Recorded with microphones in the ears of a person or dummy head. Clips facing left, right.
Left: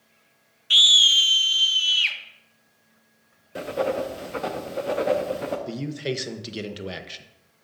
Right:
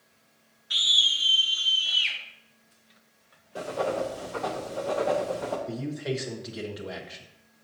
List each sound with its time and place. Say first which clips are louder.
0.7 s a scream: left 7 dB; 40° left (ahead or behind), 0.5 m; by 2.2 s 65° left (ahead or behind), 1.3 m
3.5 s writing: left 3 dB; 30° left (ahead or behind), 0.8 m
5.7 s a man speaking: left 2 dB; 40° left (ahead or behind), 0.9 m